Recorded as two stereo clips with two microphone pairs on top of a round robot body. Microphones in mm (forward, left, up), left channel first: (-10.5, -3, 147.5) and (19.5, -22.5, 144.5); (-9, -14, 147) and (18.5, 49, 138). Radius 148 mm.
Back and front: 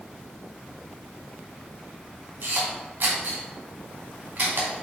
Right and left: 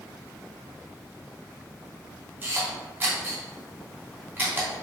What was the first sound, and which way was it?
A camera shutter, straight ahead.